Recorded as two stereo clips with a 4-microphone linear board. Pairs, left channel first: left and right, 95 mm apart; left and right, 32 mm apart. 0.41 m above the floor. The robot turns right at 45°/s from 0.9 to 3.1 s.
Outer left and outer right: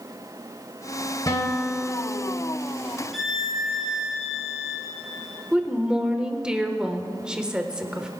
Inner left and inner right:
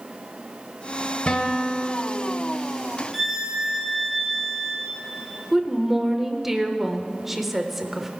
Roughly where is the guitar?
Behind left.